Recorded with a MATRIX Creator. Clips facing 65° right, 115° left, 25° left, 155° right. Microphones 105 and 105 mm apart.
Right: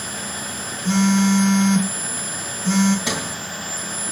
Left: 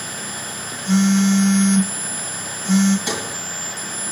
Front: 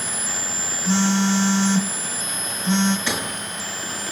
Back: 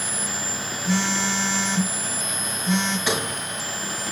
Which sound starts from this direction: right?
A sliding door, at 3.1 s.